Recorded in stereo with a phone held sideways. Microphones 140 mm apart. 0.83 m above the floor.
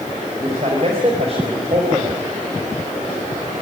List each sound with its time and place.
0.4 s a man speaking: 45° right (ahead or behind), 4.5 m